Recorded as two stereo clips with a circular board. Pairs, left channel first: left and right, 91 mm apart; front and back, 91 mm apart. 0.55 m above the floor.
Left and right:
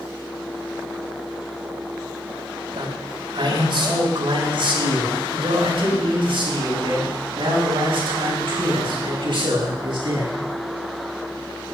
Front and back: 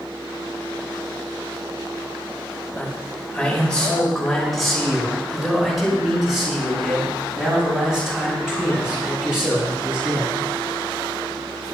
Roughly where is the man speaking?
Right.